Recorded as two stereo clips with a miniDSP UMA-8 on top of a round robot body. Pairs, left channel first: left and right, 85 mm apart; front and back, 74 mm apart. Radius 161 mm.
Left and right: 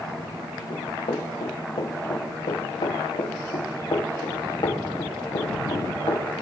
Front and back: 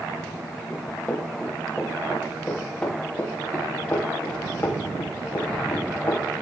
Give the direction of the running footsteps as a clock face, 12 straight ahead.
9 o'clock.